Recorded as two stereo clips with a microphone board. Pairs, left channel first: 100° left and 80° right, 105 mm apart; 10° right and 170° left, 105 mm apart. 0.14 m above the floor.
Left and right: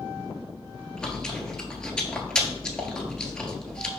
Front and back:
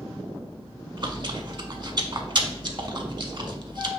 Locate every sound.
1.0 s chewing: 175° left, 0.5 m